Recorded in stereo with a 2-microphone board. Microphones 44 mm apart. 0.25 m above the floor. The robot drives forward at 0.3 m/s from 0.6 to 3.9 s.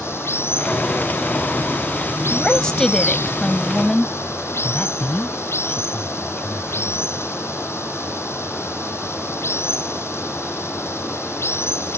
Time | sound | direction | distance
0.0 | running water | 70° left (ahead or behind) | ?
2.3 | a woman speaking | 20° left (ahead or behind) | ?
4.6 | a man speaking | 35° left (ahead or behind) | ?